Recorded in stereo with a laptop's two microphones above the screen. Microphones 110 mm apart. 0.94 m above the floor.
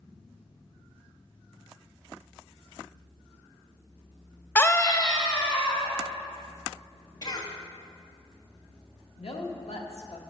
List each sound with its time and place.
4.5 s a scream: 20° left (ahead or behind), 0.6 m; by 5.9 s 45° left (ahead or behind), 1.8 m
7.2 s a cough: 40° left (ahead or behind), 1.7 m
9.2 s a woman speaking: 65° left (ahead or behind), 1.3 m